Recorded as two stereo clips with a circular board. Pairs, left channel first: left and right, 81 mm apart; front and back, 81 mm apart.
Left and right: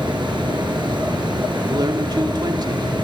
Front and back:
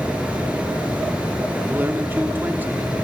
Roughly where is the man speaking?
Behind right.